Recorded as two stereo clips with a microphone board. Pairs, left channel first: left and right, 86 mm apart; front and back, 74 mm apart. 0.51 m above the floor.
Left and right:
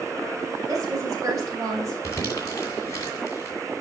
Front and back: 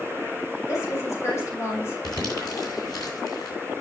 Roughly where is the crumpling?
Ahead left.